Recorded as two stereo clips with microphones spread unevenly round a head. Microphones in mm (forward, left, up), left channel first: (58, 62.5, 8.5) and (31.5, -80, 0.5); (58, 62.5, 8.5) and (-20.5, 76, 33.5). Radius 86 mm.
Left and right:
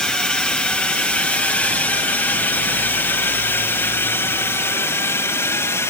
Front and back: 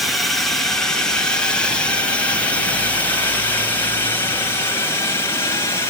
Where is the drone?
Straight ahead; by 5.9 s 10° left.